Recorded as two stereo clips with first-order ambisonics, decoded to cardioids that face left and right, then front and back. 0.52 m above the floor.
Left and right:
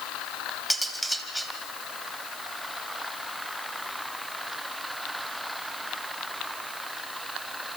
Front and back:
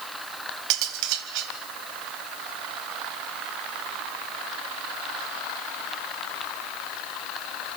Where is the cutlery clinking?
Straight behind, 1.9 m.